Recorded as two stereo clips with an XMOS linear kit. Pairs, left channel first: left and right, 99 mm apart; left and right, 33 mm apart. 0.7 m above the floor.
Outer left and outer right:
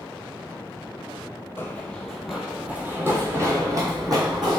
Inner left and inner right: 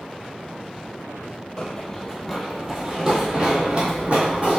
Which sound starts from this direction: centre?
Running footsteps, at 1.6 s.